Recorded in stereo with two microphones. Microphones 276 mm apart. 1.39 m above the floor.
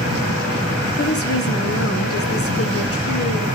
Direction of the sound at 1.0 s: 55° left (ahead or behind).